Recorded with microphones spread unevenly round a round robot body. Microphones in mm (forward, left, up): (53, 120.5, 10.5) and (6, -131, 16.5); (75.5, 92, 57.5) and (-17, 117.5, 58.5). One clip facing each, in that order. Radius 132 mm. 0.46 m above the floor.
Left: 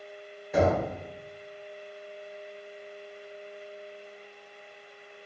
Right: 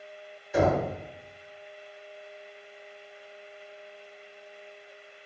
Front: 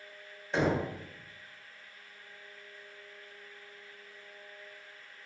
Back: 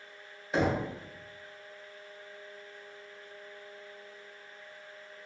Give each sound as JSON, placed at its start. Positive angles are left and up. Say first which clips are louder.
{"t": 0.5, "sound": "knocking", "louder": "even, even", "azimuth_deg": 80, "distance_m": 1.5}